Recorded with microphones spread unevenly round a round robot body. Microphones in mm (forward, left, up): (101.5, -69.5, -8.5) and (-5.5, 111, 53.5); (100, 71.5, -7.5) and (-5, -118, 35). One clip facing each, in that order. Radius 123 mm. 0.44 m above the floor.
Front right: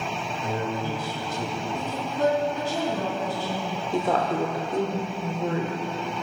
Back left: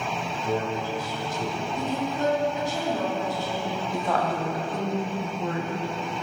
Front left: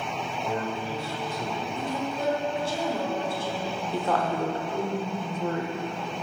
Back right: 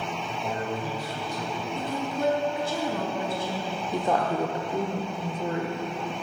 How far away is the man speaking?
About 2.5 m.